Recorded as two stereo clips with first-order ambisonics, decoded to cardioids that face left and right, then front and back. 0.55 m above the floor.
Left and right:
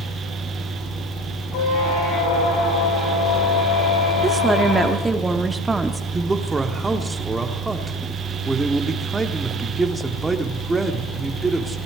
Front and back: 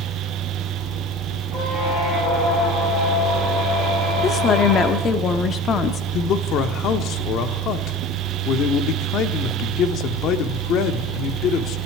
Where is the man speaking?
15° right, 0.8 m.